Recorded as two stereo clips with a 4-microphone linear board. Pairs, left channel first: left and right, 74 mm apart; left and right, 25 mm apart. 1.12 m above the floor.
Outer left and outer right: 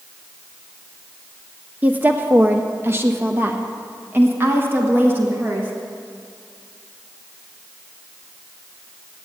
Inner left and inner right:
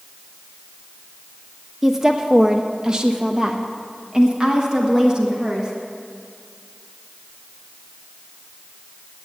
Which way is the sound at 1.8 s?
20° right (ahead or behind).